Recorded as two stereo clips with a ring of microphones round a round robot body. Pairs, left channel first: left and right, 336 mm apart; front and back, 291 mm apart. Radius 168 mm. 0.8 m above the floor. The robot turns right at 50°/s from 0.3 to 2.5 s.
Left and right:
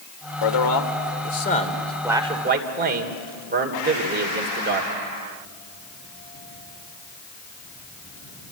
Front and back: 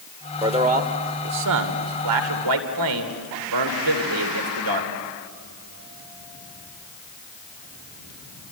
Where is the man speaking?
105° left, 2.5 m; by 4.9 s 155° right, 2.5 m.